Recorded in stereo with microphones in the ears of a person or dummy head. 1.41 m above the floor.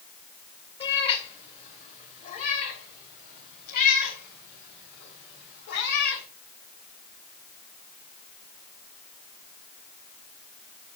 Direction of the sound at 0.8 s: 25° left (ahead or behind).